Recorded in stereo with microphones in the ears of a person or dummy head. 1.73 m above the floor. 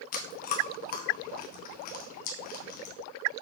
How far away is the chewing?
About 1.3 m.